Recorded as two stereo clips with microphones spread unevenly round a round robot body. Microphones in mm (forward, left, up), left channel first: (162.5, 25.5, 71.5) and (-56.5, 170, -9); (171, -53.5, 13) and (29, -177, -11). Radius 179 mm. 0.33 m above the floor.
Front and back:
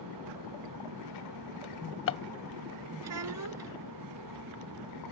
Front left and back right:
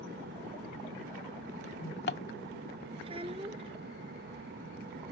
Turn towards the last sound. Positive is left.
turn(degrees=145)